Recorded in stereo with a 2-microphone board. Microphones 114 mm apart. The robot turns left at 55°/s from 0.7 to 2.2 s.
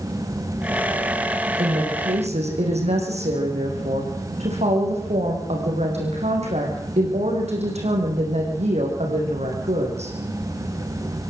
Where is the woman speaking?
65° right, 6.5 m; by 10.2 s 100° right, 6.5 m.